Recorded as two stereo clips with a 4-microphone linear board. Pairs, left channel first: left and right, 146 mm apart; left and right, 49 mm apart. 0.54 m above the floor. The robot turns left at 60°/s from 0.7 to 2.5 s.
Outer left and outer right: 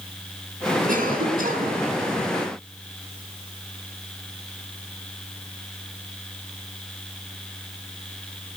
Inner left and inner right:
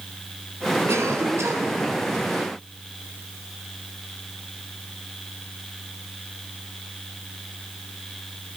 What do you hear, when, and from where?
0.9 s a cough: 70° right, 5.5 m; by 1.8 s 125° right, 5.5 m